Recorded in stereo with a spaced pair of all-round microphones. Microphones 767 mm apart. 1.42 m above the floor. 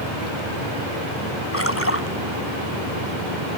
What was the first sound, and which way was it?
A splash, 15° left (ahead or behind).